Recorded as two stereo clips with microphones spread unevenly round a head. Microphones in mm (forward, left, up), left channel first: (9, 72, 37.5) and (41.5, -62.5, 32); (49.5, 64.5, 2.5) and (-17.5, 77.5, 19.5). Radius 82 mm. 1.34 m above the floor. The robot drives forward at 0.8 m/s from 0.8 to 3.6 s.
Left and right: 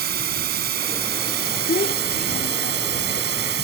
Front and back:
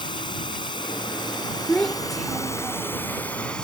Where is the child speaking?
75° left; by 3.2 s 100° left.